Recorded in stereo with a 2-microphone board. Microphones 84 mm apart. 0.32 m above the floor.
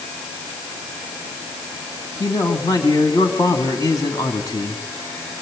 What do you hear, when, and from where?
2.2 s a man speaking: 45° left (ahead or behind), 3 m